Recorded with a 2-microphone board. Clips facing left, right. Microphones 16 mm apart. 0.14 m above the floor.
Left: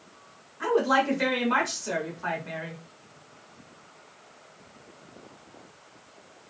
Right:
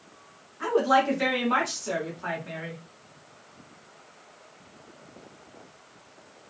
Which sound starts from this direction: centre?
A woman speaking, at 0.6 s.